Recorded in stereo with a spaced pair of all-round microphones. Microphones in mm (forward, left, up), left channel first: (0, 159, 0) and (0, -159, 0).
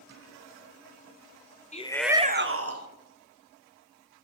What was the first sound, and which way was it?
A shout, 20° left (ahead or behind).